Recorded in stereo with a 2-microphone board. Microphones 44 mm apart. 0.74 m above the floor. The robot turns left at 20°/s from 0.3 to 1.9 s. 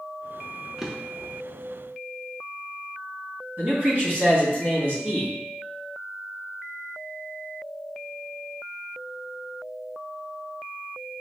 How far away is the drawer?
About 0.6 m.